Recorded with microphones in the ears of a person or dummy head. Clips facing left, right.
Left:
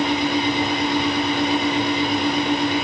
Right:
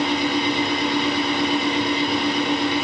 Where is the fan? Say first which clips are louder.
Left 1 dB; 45° left (ahead or behind), 2.5 m.